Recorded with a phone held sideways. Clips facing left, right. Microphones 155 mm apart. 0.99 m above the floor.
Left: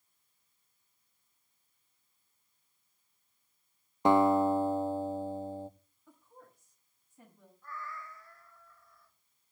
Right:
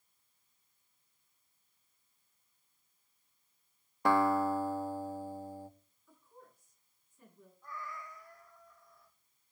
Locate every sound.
4.0 s a guitar: 20° left (ahead or behind), 0.6 m
6.1 s a woman speaking: 90° left, 7 m
7.6 s a cat meowing: 15° right (ahead or behind), 2.5 m